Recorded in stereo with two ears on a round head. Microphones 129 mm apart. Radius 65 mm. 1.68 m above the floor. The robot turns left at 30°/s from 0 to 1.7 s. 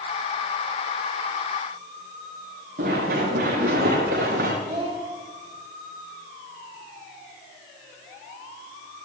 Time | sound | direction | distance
2.8 | running footsteps | 70° right (ahead or behind) | 10 m
4.6 | a child speaking | 35° right (ahead or behind) | 6 m